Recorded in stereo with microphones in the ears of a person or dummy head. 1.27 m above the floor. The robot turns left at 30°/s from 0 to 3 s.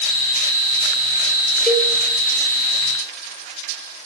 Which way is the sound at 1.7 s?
5° left (ahead or behind).